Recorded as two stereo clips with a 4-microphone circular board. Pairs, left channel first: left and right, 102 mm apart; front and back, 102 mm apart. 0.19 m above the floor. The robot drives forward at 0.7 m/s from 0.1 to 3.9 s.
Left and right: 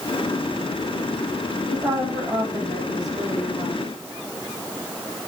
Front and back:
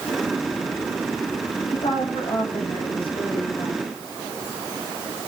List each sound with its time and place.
1.7 s a woman speaking: 35° right, 6.5 m; by 3.8 s 40° right, 5 m